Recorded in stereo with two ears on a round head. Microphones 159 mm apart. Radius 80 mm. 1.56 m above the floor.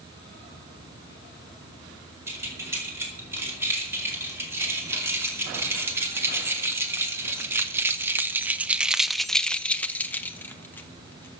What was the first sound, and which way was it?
Keys jangling, 15° right (ahead or behind).